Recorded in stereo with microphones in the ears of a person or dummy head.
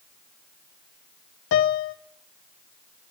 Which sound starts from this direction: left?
A piano, at 1.5 s.